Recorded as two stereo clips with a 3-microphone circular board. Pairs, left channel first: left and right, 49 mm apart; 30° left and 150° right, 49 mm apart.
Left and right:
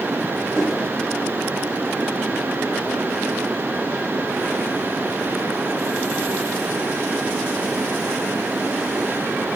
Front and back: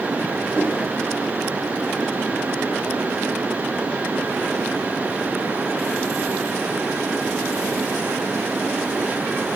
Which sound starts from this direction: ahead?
A whoosh, at 0.5 s.